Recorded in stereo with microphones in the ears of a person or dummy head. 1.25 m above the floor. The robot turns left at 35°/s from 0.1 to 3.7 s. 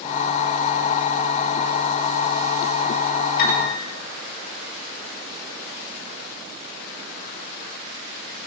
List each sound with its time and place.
3.4 s a piano: 60° left (ahead or behind), 3.5 m; by 3.7 s 50° left (ahead or behind), 3.5 m